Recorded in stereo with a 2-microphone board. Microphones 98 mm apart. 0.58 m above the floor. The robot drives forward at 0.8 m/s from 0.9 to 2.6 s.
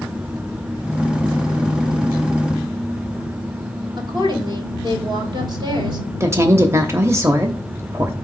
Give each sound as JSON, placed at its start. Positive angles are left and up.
{"t": 4.0, "sound": "a woman speaking", "side_deg": -50, "distance_m": 2.0}
{"t": 6.2, "sound": "a woman speaking", "side_deg": -30, "distance_m": 0.8}